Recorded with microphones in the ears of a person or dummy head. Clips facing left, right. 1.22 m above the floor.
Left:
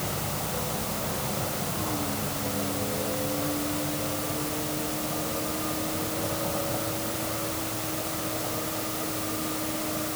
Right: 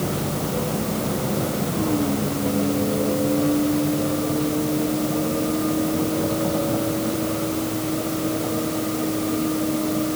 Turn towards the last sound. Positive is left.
turn(degrees=-45)  # may be behind; listen again after turning